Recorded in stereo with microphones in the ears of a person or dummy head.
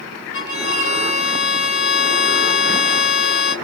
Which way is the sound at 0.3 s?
65° left (ahead or behind).